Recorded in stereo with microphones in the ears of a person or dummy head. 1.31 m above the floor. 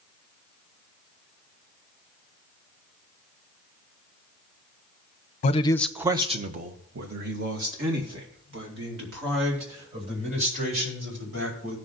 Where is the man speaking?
40° left (ahead or behind), 0.7 m; by 11.8 s 70° right (ahead or behind), 6 m.